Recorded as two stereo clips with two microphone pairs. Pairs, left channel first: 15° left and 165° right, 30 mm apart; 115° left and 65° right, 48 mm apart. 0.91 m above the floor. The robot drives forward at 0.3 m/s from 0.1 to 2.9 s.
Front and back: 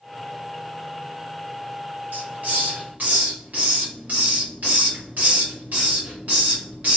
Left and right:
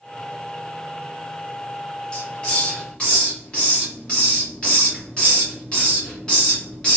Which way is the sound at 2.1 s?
Straight behind.